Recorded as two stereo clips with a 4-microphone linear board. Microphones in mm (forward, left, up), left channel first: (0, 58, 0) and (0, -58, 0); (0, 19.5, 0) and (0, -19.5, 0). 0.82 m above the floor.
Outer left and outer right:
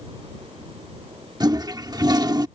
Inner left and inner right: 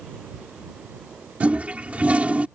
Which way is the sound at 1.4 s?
35° right (ahead or behind).